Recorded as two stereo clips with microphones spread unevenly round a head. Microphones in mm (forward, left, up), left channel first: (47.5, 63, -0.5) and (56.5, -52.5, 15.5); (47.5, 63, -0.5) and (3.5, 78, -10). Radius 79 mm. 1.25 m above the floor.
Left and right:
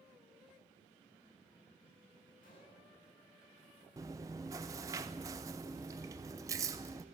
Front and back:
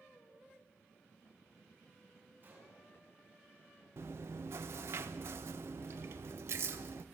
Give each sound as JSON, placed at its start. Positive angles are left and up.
{"t": 2.4, "sound": "a gunshot", "azimuth_deg": 120, "distance_m": 10.0}
{"t": 4.0, "sound": "chewing", "azimuth_deg": -155, "distance_m": 0.5}